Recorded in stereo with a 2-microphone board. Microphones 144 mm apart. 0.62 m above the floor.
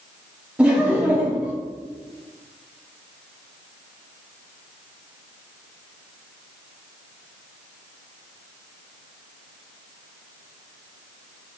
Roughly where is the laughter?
Centre.